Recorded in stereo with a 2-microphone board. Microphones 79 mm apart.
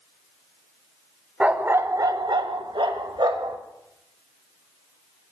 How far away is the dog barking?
About 0.6 m.